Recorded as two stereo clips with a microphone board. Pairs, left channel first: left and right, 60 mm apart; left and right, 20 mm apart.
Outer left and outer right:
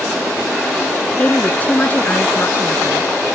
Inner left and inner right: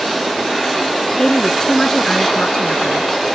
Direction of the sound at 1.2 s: 25° left (ahead or behind).